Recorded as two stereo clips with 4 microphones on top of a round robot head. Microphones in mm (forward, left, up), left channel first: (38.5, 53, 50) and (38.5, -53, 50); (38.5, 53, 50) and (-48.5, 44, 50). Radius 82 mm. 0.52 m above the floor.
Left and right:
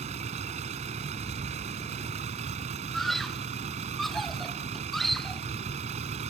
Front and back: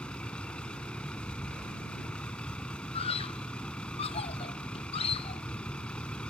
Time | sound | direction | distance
0.0 | a vehicle | 75° right | ?
2.9 | a scream | straight ahead | ?